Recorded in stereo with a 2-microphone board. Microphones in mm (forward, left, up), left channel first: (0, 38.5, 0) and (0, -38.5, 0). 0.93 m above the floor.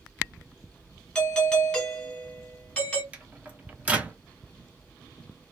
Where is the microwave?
20° right (ahead or behind), 0.6 m.